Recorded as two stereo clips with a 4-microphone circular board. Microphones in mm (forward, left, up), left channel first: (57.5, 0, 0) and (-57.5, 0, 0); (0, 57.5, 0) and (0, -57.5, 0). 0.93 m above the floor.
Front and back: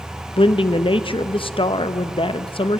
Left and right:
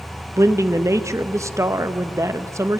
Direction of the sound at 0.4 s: 30° right.